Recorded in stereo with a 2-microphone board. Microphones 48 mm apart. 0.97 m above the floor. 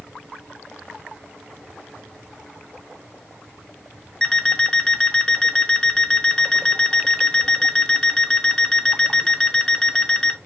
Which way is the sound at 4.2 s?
15° left (ahead or behind).